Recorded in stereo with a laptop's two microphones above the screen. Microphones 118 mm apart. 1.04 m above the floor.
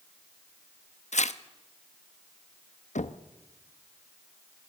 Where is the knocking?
80° left, 0.8 m.